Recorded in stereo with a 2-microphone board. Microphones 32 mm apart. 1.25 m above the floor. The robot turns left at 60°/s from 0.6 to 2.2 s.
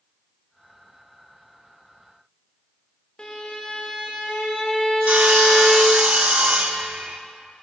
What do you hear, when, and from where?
3.2 s a violin: 35° left (ahead or behind), 1.0 m
5.1 s sawing: 45° right (ahead or behind), 0.5 m